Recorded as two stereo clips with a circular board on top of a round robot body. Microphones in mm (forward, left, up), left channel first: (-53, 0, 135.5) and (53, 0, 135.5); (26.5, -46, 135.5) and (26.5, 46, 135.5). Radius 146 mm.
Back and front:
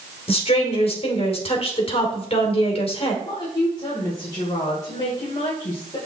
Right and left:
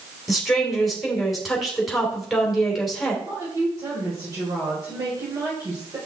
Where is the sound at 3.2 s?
140° left, 2.5 m.